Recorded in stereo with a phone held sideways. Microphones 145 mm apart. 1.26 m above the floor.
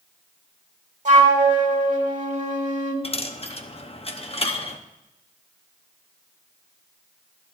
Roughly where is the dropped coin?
Left.